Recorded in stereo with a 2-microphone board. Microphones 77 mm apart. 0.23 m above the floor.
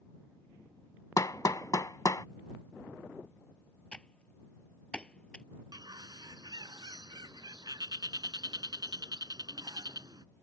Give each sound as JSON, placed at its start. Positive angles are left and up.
{"t": 1.2, "sound": "hammering", "side_deg": 50}
{"t": 3.9, "sound": "typing on a keyboard", "side_deg": 15}
{"t": 5.7, "sound": "a bird", "side_deg": -70}